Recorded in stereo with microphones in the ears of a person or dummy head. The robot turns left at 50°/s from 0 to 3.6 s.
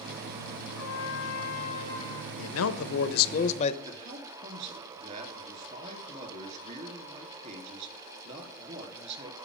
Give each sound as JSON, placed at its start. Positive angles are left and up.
{"t": 0.8, "sound": "a trumpet", "azimuth_deg": 85, "distance_m": 3.0}
{"t": 2.4, "sound": "a man speaking", "azimuth_deg": 95, "distance_m": 0.6}
{"t": 3.9, "sound": "a man speaking", "side_deg": -45, "distance_m": 2.5}